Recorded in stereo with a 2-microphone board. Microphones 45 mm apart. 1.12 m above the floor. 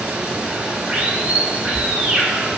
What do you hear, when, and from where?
0.0 s running water: 20° right (ahead or behind), 1.3 m